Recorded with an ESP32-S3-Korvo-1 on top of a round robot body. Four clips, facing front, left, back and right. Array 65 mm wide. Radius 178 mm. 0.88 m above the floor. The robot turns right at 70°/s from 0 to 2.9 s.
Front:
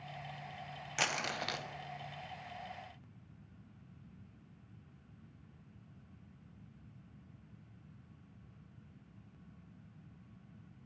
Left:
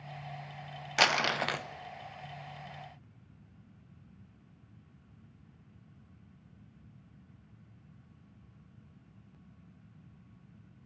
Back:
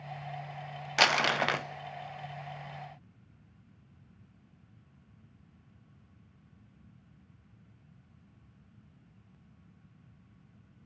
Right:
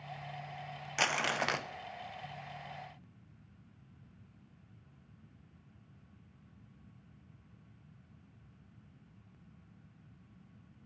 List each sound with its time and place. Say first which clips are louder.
1.0 s crumpling: left 4 dB, back 11 dB; 150° left, 1.2 m; by 1.6 s 165° right, 1.2 m